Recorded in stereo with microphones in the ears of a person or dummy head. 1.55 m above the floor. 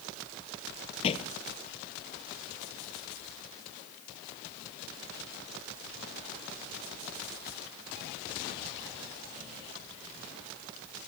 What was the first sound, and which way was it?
A thud, 30° left (ahead or behind).